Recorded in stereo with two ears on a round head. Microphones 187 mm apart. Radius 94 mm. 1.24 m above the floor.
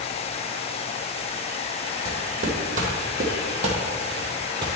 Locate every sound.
2.0 s footsteps: 40° right (ahead or behind), 3 m; by 4.7 s 20° right (ahead or behind), 1.9 m